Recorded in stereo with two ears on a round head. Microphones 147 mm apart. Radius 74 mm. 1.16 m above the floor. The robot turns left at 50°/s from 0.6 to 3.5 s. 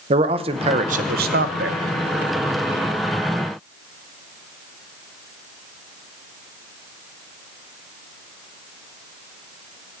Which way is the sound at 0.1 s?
35° right.